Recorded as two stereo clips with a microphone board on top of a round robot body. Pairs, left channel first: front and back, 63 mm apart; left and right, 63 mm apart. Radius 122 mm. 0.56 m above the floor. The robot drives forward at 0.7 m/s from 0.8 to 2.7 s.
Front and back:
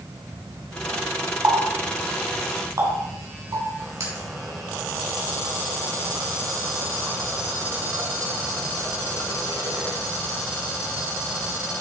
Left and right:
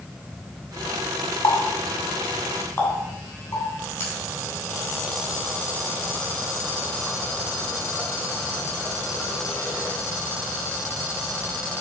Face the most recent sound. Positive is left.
turn(degrees=145)